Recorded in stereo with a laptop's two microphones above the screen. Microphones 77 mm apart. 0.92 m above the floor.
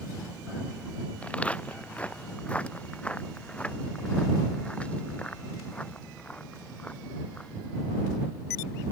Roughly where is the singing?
I don't hear singing.